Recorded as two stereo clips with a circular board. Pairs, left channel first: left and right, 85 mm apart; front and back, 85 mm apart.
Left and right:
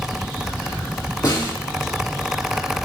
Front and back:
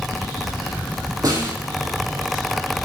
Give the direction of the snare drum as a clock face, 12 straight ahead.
7 o'clock.